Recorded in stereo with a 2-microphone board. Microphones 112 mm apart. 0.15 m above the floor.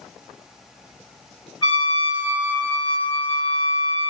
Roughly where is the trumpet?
Left.